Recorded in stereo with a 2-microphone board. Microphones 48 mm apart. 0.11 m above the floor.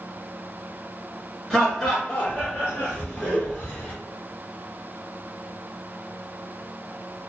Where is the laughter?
10° left (ahead or behind), 1.5 m; by 3.9 s 30° left (ahead or behind), 1.8 m.